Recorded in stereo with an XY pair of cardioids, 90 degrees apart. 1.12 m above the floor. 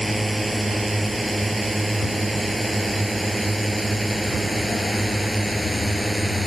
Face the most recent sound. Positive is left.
turn(degrees=-10)